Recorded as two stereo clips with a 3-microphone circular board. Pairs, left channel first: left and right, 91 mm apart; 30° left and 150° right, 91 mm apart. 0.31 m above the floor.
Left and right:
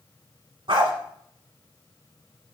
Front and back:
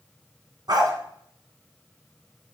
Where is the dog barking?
110° right, 1.3 m.